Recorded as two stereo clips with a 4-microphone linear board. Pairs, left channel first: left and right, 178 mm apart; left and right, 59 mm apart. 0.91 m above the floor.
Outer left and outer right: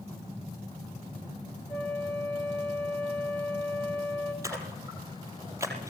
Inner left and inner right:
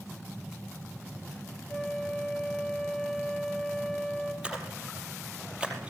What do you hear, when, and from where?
1.7 s a flute: 5° left (ahead or behind), 4.5 m
4.4 s a splash: 15° right (ahead or behind), 4.5 m